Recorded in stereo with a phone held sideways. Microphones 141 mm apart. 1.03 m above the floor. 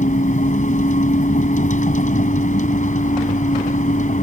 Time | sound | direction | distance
0.0 | a vehicle | 65° left (ahead or behind) | ?